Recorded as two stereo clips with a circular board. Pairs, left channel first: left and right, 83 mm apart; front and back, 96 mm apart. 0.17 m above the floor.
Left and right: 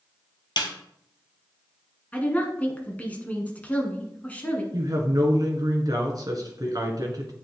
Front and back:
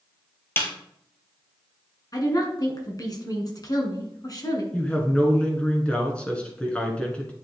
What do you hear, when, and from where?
0.6 s a snare drum: 65° left, 1.8 m
2.1 s a woman speaking: 25° left, 1.9 m
4.7 s a woman speaking: 75° right, 2 m